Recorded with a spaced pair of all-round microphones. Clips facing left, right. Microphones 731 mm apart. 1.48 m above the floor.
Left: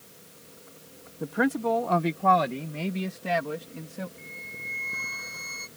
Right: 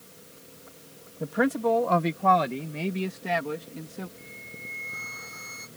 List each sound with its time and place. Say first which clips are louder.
1.2 s a man speaking: right 1 dB; 15° right (ahead or behind); by 4.1 s 10° left (ahead or behind)
4.2 s a flute: even; 5° left (ahead or behind)